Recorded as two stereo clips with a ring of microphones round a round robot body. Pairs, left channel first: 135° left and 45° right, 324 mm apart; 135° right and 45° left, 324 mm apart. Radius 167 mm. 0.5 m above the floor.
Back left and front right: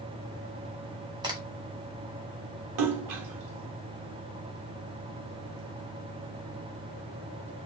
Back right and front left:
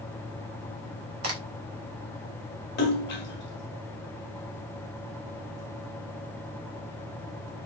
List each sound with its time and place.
1.2 s a crack: 25° left, 1.6 m
2.8 s a splash: 75° right, 1.3 m